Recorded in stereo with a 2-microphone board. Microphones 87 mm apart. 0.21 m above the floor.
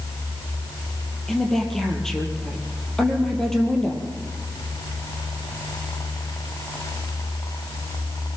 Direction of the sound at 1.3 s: 5° left (ahead or behind).